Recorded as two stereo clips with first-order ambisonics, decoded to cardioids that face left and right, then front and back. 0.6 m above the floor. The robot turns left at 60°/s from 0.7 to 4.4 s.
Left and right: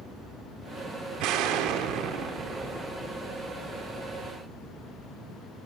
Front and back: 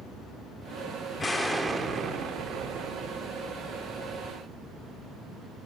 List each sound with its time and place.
1.2 s an explosion: 70° right, 1.4 m; by 3.9 s 125° left, 1.4 m